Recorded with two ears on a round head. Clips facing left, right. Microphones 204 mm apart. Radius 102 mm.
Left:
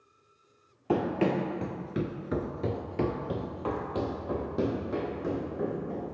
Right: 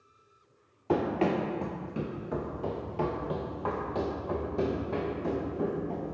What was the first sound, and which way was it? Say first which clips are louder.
Running footsteps: even; 10° left (ahead or behind).